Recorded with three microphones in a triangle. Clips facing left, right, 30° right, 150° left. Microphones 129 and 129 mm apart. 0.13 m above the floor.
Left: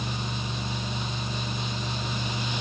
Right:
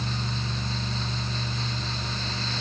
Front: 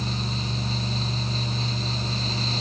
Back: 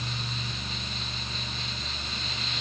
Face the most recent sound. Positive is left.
No sound to turn to.